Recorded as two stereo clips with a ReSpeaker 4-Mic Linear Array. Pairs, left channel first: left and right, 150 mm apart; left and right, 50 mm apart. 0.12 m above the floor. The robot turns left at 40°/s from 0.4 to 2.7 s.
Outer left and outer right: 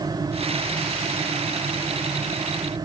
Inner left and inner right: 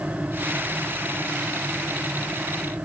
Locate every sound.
Only background noise.